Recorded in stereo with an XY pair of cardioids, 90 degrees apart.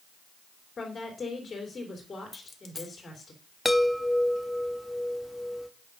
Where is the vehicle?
I don't hear a vehicle.